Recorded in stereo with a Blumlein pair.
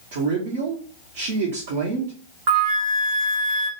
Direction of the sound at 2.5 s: 40° right.